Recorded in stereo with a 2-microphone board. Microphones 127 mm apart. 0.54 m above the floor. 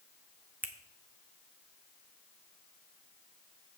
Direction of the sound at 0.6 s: 15° right (ahead or behind).